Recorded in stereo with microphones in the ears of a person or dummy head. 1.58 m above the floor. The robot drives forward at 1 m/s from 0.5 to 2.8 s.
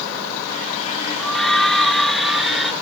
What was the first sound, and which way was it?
A scream, 5° left (ahead or behind).